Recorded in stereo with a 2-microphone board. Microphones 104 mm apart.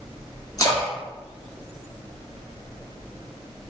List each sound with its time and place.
0.6 s a splash: 35° left (ahead or behind), 1.4 m